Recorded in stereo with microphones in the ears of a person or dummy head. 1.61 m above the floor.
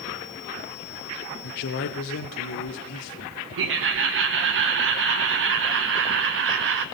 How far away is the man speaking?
About 0.6 m.